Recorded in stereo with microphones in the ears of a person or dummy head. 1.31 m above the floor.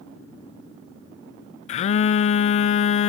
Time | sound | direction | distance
1.7 | a phone buzzing | 40° left (ahead or behind) | 0.6 m